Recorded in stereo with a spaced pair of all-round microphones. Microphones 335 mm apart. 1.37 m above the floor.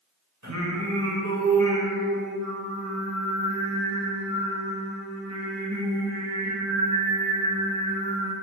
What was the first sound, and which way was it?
Singing, 55° right (ahead or behind).